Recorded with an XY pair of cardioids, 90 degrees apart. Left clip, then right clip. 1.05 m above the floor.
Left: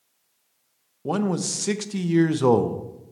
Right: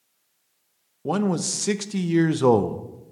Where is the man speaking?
10° right, 0.6 m.